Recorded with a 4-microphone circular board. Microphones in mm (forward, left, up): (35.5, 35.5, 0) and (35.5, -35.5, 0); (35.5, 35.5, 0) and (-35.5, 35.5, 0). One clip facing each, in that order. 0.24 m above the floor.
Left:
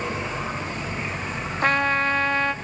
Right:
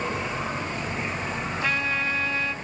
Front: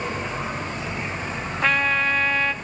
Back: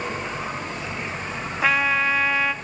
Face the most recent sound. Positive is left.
turn(degrees=95)